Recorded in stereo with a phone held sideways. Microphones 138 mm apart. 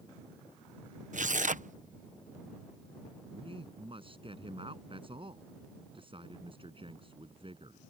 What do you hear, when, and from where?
1.1 s tearing paper: 70° right (ahead or behind)
3.3 s a man speaking: 40° right (ahead or behind)